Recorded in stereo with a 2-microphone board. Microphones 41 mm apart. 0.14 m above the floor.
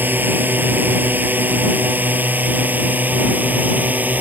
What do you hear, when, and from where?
0.0 s a drone: 55° right (ahead or behind); by 4.2 s 45° right (ahead or behind)